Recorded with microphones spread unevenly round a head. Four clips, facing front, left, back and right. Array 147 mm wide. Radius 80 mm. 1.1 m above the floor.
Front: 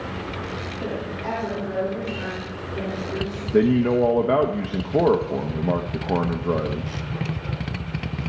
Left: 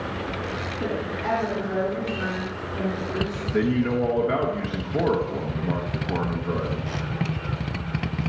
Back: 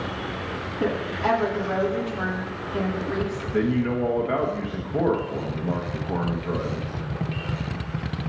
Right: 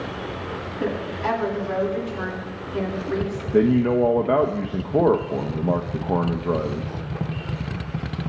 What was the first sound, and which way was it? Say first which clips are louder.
A woman speaking: right 3 dB, back 6 dB; straight behind.